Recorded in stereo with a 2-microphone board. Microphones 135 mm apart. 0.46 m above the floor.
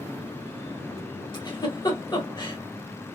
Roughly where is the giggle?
Left.